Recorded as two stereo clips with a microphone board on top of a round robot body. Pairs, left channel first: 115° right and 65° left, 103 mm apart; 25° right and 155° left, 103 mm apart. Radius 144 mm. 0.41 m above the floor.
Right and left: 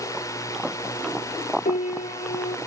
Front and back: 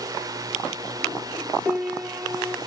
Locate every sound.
0.0 s a drone: 160° right; by 2.7 s 165° right
1.6 s a piano: 120° right